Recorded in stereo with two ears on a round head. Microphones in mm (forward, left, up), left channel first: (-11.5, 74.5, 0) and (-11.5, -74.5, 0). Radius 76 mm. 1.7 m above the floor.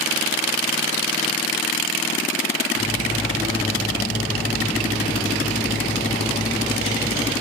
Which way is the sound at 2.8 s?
40° left (ahead or behind).